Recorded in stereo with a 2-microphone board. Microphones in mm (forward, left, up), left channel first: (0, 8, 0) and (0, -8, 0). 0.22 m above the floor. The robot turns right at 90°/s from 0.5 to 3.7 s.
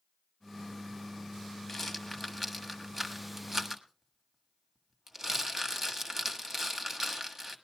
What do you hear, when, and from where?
1.7 s a rattle: 25° left (ahead or behind), 1.4 m; by 7.5 s 25° right (ahead or behind), 1.4 m